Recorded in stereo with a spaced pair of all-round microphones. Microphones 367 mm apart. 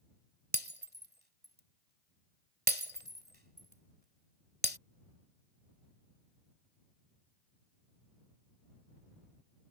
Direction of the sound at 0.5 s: 25° right (ahead or behind).